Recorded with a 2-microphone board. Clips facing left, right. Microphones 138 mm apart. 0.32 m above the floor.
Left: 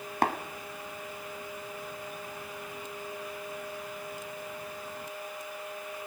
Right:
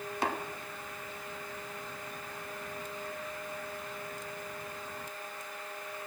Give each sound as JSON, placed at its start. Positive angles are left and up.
{"t": 0.2, "sound": "tapping", "side_deg": 55, "distance_m": 1.5}